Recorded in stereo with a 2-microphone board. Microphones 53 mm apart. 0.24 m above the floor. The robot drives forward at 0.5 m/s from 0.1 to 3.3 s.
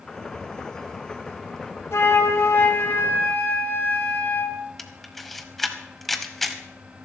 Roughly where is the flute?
Left.